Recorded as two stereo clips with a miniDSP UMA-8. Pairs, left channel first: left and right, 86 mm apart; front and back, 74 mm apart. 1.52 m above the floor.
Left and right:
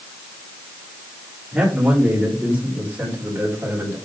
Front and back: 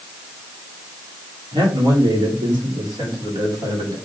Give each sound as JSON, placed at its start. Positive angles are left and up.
{"t": 1.5, "sound": "a man speaking", "azimuth_deg": -170, "distance_m": 3.5}